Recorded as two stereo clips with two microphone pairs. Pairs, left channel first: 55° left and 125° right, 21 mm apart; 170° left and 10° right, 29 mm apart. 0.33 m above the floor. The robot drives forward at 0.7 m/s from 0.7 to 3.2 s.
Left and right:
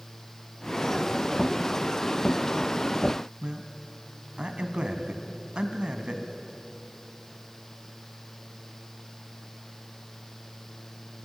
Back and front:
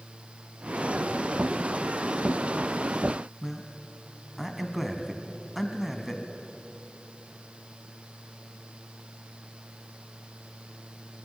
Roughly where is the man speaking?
Right.